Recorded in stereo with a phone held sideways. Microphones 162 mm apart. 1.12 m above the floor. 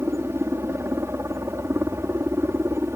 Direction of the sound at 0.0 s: 15° right (ahead or behind).